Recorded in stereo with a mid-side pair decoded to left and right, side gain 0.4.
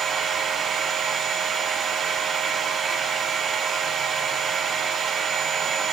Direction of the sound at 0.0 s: 55° right.